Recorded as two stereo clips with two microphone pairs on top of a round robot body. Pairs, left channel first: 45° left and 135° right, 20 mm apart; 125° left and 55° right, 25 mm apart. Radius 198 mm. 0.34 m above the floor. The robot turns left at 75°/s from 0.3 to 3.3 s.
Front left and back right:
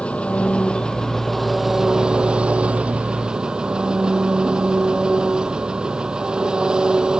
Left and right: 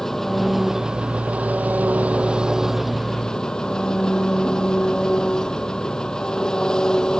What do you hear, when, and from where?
0.0 s an engine running: 45° left; by 7.2 s straight behind